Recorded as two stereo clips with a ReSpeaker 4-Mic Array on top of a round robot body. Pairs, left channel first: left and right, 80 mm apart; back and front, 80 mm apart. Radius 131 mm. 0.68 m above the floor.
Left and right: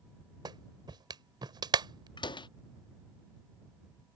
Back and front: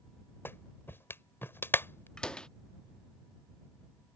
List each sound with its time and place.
0.5 s a clap: 120° right
2.2 s a door slam: 100° left